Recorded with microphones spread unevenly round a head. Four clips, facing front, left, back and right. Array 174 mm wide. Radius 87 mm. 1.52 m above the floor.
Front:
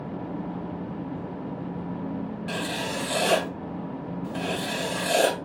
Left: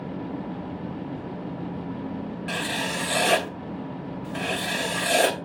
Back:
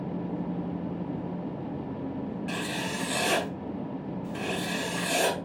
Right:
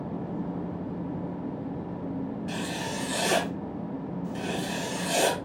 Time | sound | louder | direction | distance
2.5 | writing | left 3 dB, front 2 dB | 40° left | 1.7 m